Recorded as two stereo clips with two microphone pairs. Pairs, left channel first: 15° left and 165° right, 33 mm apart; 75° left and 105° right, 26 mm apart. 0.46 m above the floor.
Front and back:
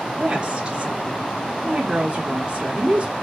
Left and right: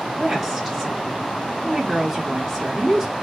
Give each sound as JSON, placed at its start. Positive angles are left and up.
{"t": 0.2, "sound": "a woman speaking", "azimuth_deg": 160, "distance_m": 1.2}